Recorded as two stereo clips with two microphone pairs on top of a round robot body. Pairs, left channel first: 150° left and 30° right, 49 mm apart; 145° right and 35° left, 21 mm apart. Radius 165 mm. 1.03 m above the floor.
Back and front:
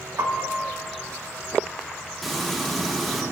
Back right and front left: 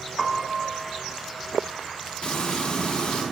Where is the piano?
55° right, 1.6 m.